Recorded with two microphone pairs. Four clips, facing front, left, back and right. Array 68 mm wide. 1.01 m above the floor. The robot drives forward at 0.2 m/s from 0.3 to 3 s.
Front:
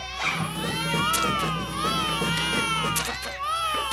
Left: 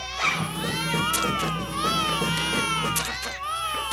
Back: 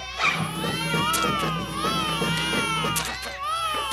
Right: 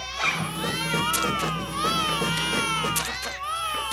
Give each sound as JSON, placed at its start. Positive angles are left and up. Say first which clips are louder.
{"t": 0.2, "sound": "a zipper", "louder": "left 1 dB, back 3 dB", "azimuth_deg": 170, "distance_m": 5.5}